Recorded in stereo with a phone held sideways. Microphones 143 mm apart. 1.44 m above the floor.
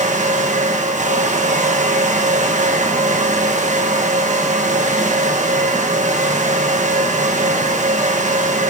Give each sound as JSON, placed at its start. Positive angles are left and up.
{"t": 0.0, "sound": "a fan", "side_deg": -65, "distance_m": 1.2}